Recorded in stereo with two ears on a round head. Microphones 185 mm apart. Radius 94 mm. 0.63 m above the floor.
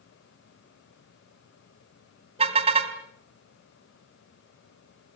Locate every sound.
2.4 s a car horn: 30° right (ahead or behind), 2 m